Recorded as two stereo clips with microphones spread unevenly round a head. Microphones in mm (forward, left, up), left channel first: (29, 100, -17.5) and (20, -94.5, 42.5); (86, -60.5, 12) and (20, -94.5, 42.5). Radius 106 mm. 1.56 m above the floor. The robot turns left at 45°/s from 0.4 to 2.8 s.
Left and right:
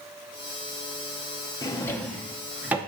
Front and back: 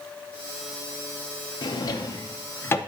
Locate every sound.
1.6 s a drawer: straight ahead, 0.6 m; by 2.8 s 55° right, 0.6 m